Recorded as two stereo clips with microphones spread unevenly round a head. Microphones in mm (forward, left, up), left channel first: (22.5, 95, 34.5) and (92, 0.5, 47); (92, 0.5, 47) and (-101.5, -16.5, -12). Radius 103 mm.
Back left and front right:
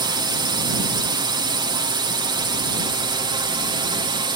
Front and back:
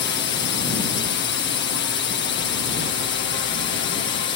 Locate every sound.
0.0 s a drone: 20° right